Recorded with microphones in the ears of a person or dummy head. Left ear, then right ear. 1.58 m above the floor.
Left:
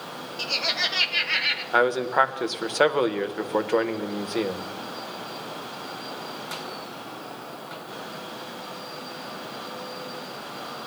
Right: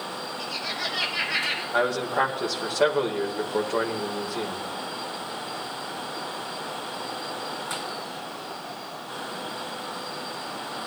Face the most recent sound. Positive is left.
turn(degrees=40)  # may be behind; listen again after turning